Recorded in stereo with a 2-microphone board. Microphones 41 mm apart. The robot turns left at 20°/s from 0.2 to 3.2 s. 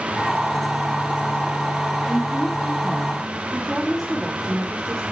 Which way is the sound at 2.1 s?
10° left (ahead or behind).